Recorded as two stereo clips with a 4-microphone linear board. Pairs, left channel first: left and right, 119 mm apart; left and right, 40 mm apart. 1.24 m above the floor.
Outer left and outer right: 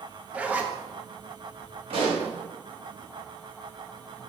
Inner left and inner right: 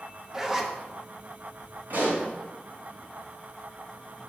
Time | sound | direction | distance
0.3 | a zipper | 10° right (ahead or behind) | 0.7 m
1.9 | a pop | 55° right (ahead or behind) | 2.5 m